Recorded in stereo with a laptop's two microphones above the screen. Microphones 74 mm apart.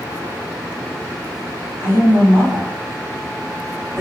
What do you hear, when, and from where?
1.8 s a woman speaking: 45° right (ahead or behind), 2.0 m